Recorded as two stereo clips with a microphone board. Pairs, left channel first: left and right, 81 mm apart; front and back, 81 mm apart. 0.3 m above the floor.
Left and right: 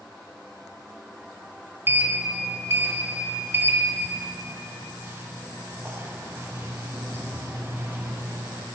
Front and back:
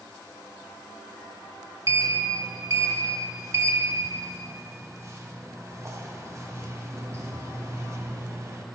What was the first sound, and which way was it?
A sliding door, 140° right.